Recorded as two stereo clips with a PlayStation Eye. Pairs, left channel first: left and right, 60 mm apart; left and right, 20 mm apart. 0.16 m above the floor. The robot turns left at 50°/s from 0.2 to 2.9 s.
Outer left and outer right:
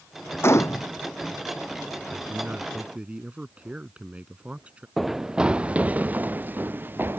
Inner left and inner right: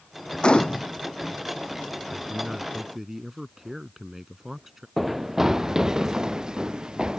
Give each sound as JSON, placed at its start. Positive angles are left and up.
{"t": 0.4, "sound": "a gunshot", "side_deg": 45}
{"t": 2.1, "sound": "a man speaking", "azimuth_deg": -100}
{"t": 5.0, "sound": "running footsteps", "side_deg": 0}